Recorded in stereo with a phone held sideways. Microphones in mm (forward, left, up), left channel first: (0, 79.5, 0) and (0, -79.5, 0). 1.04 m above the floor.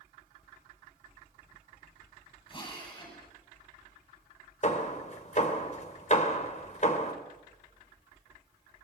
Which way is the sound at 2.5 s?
30° left (ahead or behind).